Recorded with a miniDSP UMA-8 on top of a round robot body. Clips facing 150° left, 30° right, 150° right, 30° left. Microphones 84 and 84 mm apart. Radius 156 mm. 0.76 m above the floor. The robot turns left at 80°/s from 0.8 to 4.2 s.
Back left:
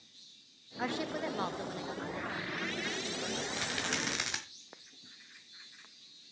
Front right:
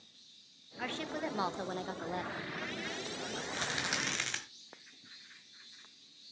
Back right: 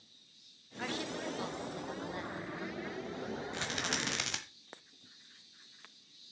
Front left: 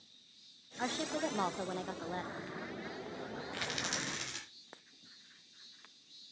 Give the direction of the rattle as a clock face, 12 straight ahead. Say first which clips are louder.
Even, back right 1 dB; 3 o'clock.